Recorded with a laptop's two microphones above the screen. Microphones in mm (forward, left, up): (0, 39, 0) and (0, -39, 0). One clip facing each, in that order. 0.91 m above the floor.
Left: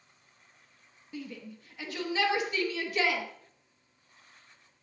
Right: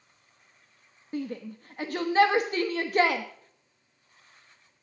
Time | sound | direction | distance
1.1 | a shout | 45° right (ahead or behind) | 0.7 m